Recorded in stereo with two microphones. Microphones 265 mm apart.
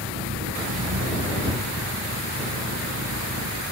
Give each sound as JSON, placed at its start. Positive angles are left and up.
{"t": 0.0, "sound": "an engine running", "side_deg": -75}